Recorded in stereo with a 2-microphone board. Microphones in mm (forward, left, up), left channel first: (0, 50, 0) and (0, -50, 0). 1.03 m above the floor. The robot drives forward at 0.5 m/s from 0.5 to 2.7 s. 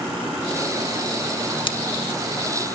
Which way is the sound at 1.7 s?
55° left (ahead or behind).